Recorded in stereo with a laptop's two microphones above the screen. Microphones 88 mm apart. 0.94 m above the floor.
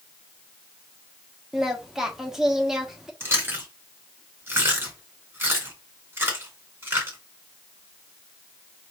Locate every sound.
1.5 s singing: 5° right (ahead or behind), 1.2 m
3.2 s chewing: 25° right (ahead or behind), 2 m